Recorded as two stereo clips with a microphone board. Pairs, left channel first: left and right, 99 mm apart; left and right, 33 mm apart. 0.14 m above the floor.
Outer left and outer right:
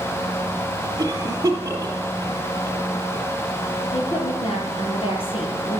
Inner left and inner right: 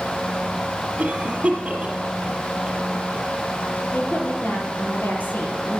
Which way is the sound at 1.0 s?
30° right (ahead or behind).